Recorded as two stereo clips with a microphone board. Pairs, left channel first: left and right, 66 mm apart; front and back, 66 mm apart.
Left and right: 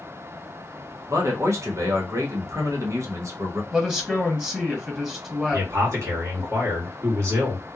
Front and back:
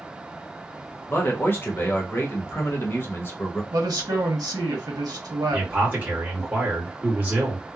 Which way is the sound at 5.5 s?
120° right.